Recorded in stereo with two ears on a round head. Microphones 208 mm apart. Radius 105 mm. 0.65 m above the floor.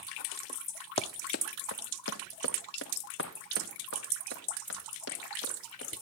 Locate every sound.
1.0 s running footsteps: 25° left (ahead or behind), 0.7 m; by 5.9 s 50° left (ahead or behind), 5 m